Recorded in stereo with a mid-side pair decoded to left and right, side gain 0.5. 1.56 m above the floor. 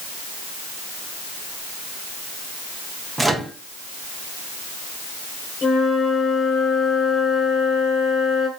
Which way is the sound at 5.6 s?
50° left.